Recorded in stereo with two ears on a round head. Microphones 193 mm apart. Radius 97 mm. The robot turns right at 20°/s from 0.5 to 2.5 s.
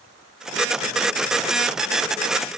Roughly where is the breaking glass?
No breaking glass in this recording.